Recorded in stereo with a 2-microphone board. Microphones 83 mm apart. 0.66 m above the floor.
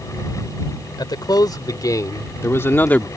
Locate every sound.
1.0 s a man speaking: 55° left (ahead or behind); by 3.1 s 15° left (ahead or behind)